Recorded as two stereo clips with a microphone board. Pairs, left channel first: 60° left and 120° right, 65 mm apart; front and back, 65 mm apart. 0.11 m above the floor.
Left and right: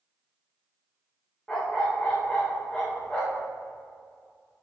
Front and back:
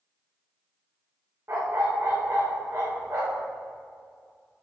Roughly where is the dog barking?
Behind left.